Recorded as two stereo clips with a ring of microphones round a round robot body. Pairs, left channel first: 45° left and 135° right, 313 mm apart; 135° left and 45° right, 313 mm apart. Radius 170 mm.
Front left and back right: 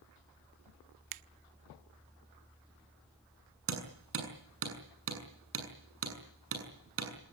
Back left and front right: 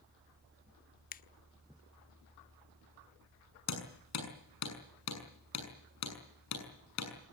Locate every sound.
1.1 s a finger snap: 160° right, 0.8 m
3.7 s hammering: 175° left, 7 m